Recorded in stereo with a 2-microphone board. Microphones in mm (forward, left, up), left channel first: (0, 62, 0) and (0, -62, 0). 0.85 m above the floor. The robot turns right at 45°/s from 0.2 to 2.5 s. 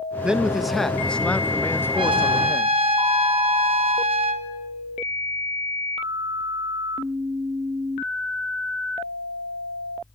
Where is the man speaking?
10° right (ahead or behind), 0.7 m; by 2.8 s 20° left (ahead or behind), 0.7 m.